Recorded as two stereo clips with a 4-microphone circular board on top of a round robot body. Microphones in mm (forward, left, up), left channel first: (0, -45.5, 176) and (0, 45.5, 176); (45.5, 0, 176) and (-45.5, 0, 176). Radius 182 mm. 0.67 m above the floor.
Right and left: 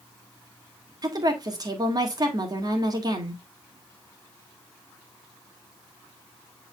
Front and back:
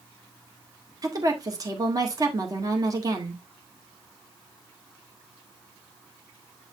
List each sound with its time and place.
1.0 s a woman speaking: 130° left, 2 m